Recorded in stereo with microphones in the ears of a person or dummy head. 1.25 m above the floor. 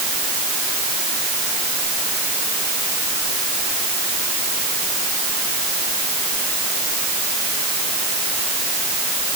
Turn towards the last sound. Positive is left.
No sound to turn to.